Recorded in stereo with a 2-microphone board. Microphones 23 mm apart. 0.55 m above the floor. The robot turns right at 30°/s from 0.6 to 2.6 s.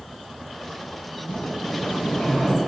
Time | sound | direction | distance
1.3 | a sliding door | 95° left | 4 m